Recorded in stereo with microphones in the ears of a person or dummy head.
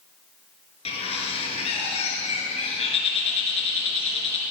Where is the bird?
30° left (ahead or behind), 4.5 m.